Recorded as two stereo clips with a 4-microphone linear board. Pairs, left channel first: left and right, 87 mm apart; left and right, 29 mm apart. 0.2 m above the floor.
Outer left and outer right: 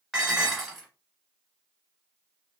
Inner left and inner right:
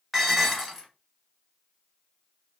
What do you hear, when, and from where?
0.1 s dishes clattering: 5° right (ahead or behind), 1.3 m